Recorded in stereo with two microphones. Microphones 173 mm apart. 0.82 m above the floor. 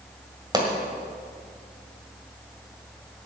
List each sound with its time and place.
0.5 s a pop: 25° right (ahead or behind), 1.9 m